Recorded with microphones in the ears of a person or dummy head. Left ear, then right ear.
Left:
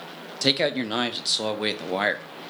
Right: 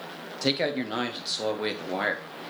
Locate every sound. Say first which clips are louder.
0.4 s a man speaking: left 4 dB; 20° left (ahead or behind), 0.7 m